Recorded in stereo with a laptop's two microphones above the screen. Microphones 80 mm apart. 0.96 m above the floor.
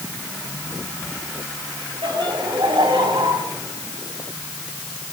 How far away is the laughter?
About 5.5 m.